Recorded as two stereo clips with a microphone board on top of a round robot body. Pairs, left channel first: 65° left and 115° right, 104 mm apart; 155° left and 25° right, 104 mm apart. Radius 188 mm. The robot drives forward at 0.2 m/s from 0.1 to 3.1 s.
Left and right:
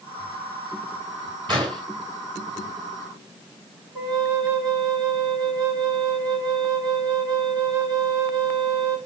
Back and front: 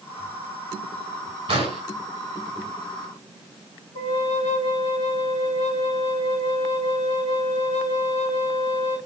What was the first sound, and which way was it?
An explosion, 60° right.